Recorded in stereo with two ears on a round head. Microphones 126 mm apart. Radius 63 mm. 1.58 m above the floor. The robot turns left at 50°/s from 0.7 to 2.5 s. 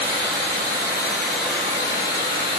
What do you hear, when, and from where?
0.0 s running water: 150° right, 1.7 m; by 2.6 s 120° left, 1.7 m